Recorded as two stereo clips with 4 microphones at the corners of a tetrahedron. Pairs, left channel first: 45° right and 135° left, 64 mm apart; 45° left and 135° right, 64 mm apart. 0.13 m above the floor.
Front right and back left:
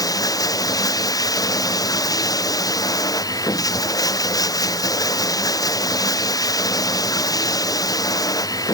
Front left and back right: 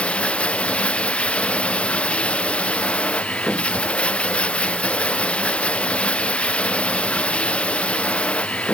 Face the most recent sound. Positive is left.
turn(degrees=-25)